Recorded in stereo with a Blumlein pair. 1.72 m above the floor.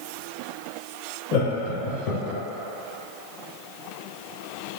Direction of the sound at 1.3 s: 40° left.